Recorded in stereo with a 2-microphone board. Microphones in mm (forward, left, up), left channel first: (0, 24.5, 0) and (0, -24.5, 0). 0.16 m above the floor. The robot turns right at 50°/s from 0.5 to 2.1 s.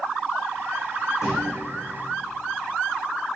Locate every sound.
1.2 s a thud: 70° left (ahead or behind), 5 m; by 1.6 s 50° left (ahead or behind), 5 m